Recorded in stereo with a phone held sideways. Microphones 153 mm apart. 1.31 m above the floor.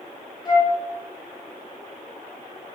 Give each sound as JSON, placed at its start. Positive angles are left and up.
{"t": 0.5, "sound": "a flute", "side_deg": 25, "distance_m": 1.4}